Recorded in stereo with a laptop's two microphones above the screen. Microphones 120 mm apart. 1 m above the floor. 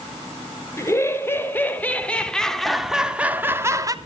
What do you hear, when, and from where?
0.8 s laughter: 20° left (ahead or behind), 3.5 m; by 4.0 s 30° right (ahead or behind), 1.6 m